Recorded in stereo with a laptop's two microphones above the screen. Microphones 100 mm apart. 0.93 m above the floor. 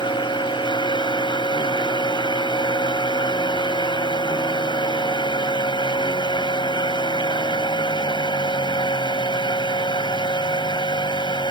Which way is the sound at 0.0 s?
55° left (ahead or behind).